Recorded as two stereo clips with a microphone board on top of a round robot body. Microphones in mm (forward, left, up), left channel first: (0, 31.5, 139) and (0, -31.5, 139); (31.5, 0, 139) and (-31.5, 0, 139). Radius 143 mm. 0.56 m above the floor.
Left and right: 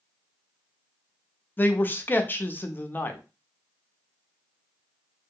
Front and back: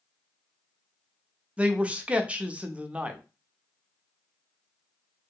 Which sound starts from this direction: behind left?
A man speaking, at 1.6 s.